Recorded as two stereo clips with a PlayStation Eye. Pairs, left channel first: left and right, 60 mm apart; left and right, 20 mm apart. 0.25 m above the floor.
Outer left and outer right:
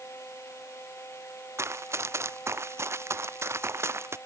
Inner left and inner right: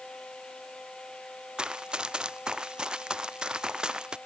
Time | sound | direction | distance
1.6 | running footsteps | 45° right (ahead or behind) | ?